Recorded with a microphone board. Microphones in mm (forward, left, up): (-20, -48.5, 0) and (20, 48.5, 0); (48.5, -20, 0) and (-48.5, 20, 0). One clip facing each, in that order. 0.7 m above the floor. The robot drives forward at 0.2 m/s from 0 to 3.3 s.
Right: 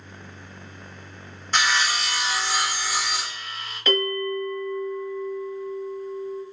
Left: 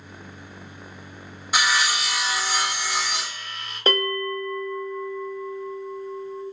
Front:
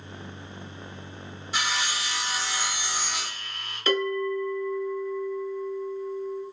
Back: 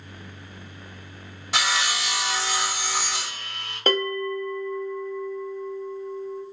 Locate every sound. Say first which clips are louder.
1.5 s sawing: even, back 4 dB; 150° left, 0.6 m; by 3.8 s 160° left, 1.0 m
3.9 s a bell: even, back 1 dB; 120° left, 1.0 m